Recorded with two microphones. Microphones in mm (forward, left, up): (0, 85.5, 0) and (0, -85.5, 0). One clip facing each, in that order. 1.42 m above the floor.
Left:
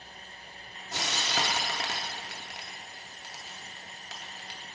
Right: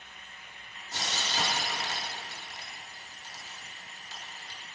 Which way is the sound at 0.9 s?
85° left.